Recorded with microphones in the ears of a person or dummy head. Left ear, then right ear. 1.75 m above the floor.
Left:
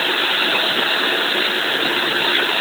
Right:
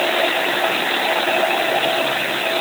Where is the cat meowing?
No cat meowing in this recording.